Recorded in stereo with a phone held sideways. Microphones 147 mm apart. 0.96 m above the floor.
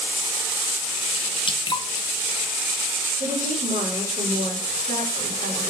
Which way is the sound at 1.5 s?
35° left (ahead or behind).